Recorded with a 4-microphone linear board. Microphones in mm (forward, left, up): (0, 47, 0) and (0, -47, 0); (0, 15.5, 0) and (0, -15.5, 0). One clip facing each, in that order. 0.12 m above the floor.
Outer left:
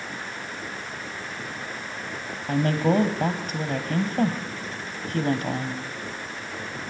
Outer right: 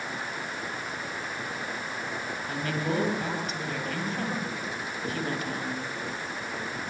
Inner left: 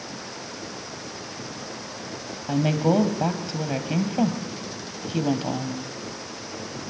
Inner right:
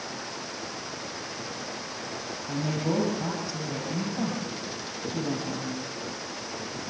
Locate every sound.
2.5 s a woman speaking: 45° left (ahead or behind), 3 m